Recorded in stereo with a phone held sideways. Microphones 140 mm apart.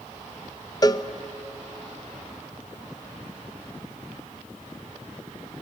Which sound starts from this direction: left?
A cowbell, at 0.8 s.